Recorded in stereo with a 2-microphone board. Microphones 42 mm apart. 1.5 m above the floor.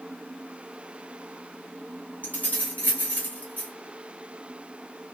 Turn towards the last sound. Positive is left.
turn(degrees=40)  # may be behind; listen again after turning